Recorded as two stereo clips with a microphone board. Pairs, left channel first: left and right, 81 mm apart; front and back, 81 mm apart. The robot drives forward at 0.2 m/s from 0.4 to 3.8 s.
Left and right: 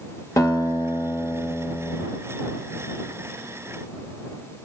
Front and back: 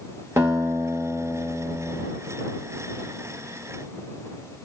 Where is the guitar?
130° left, 1.5 m; by 2.0 s 140° left, 1.7 m.